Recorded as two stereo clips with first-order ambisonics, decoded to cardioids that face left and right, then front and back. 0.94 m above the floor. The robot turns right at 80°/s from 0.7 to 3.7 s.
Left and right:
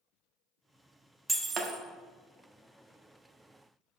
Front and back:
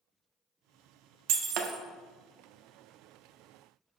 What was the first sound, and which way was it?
Breaking glass, 170° right.